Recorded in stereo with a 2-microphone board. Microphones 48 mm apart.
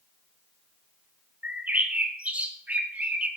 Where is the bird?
30° right (ahead or behind), 0.6 m.